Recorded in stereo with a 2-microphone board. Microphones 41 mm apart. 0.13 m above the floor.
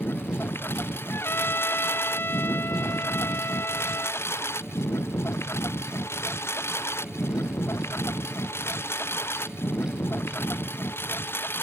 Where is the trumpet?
65° left (ahead or behind).